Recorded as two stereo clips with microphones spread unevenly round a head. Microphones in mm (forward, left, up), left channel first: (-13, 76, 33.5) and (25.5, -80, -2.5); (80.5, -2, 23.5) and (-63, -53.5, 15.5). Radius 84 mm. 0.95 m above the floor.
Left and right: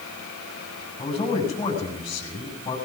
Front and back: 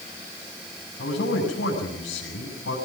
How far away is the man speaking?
About 7.5 m.